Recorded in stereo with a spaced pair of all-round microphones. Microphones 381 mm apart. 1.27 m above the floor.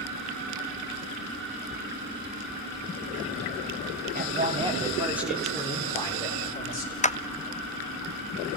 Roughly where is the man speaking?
Right.